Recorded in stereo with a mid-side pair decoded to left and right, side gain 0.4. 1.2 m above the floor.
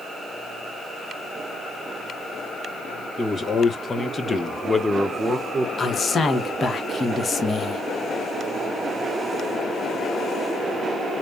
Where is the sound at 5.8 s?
40° left, 1.2 m.